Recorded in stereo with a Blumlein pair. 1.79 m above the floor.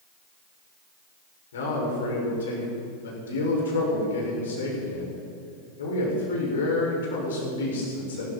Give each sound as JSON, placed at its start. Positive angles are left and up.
{"t": 1.5, "sound": "a man speaking", "azimuth_deg": 65, "distance_m": 7.0}